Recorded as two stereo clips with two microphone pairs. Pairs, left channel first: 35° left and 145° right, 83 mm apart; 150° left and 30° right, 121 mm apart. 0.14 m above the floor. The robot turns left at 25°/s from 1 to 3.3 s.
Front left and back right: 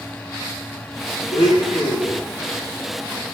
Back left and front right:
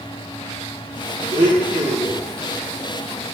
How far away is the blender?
About 3 m.